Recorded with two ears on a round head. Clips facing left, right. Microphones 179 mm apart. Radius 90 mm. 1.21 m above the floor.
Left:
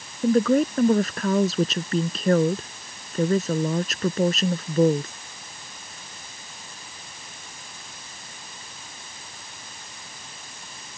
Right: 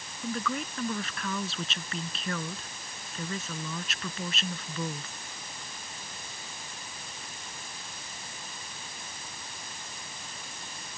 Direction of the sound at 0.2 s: 35° left (ahead or behind).